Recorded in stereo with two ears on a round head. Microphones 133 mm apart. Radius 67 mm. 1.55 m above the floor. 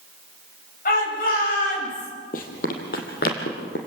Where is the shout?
65° left (ahead or behind), 10 m.